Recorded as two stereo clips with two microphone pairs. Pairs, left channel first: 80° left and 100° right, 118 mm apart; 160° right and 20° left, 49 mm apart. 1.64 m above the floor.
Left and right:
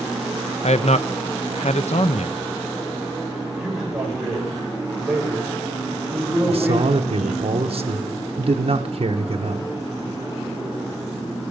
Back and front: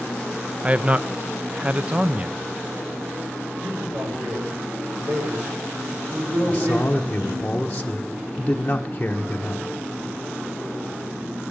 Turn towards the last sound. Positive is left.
turn(degrees=-95)